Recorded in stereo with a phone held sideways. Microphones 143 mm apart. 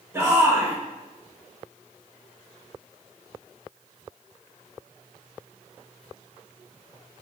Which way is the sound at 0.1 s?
20° right (ahead or behind).